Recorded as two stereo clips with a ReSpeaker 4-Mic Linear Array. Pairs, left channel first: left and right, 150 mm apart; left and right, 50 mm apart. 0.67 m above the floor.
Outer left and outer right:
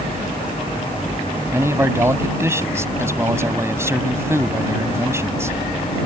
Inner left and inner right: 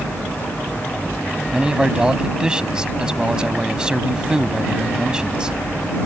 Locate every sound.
1.5 s a man speaking: 15° right (ahead or behind)